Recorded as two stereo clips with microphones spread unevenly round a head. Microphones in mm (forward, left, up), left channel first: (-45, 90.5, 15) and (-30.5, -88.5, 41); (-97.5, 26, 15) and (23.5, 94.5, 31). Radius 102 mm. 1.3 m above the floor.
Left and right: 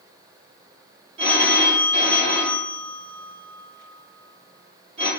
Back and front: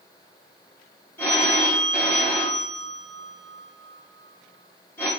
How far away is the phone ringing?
About 0.7 m.